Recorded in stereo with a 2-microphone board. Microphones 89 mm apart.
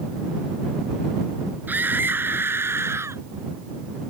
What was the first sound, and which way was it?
A scream, 20° right (ahead or behind).